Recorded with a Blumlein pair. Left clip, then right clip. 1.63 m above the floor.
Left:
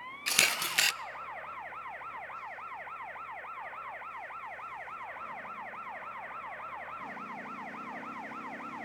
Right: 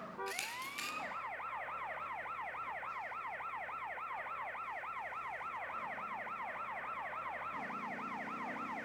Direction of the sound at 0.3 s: 35° left.